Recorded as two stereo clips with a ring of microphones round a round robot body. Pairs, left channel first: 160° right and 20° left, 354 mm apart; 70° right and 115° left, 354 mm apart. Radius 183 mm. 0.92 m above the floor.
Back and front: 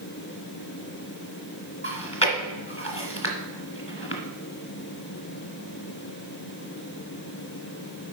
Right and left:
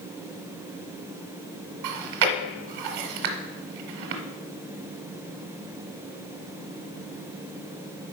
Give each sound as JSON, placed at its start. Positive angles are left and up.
{"t": 1.8, "sound": "chewing", "azimuth_deg": 130, "distance_m": 1.4}